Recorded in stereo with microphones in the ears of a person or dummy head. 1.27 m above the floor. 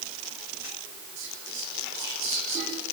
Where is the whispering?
75° right (ahead or behind), 6 m.